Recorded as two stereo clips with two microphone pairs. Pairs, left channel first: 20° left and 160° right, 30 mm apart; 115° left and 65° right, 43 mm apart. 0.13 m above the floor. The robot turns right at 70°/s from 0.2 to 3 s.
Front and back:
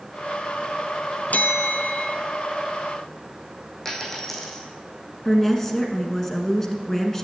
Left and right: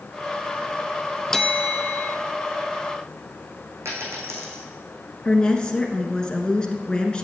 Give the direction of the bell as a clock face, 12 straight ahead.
11 o'clock.